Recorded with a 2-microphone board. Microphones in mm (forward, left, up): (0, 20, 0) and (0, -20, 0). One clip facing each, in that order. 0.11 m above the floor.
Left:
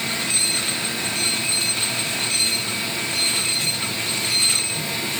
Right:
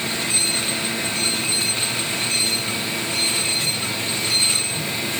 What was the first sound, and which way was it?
Only background noise.